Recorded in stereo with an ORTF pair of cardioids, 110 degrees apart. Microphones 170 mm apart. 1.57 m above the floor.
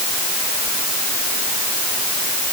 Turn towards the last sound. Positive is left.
No sound to turn to.